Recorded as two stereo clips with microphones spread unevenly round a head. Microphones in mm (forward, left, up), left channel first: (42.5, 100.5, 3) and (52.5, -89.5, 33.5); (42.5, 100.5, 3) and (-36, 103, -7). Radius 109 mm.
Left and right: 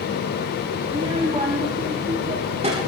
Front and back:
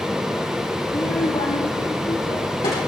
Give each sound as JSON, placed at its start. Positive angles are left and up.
{"t": 0.9, "sound": "a child speaking", "azimuth_deg": -30, "distance_m": 1.3}